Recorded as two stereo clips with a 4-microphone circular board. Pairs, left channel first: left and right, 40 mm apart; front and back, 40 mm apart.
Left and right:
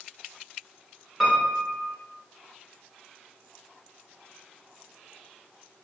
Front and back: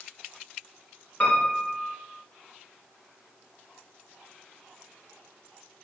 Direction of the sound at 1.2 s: Straight ahead.